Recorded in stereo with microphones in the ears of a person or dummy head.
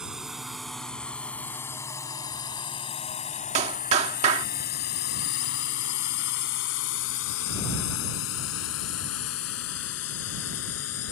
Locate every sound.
0.0 s a drone: 5° right (ahead or behind); by 11.1 s 85° left
3.5 s a clap: 40° right (ahead or behind)